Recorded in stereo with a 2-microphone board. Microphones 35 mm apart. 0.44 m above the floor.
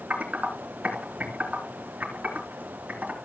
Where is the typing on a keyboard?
45° right (ahead or behind), 3.5 m.